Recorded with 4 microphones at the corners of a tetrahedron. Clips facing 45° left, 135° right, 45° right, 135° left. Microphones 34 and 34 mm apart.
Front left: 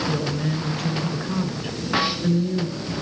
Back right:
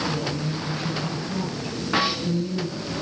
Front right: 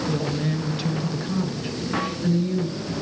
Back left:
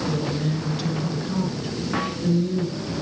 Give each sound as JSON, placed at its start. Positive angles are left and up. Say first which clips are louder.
{"t": 0.1, "sound": "a woman speaking", "louder": "front left 2 dB, even", "azimuth_deg": 35, "distance_m": 5.5}